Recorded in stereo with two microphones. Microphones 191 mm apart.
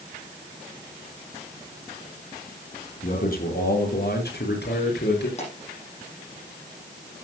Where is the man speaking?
55° left (ahead or behind), 4 m; by 5.3 s 70° left (ahead or behind), 5.5 m.